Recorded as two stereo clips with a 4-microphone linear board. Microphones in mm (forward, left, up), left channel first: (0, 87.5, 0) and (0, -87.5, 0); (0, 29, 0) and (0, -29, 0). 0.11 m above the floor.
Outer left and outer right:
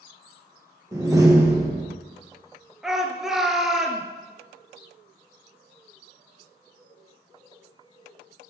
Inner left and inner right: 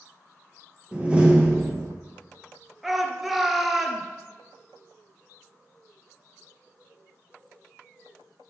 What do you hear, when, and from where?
0.9 s a door slam: 20° right (ahead or behind), 2.5 m
2.8 s a shout: 5° right (ahead or behind), 1.4 m